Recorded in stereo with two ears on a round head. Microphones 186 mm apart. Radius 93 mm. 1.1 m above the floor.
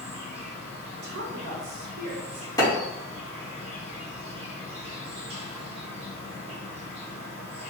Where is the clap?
15° left (ahead or behind), 1.6 m.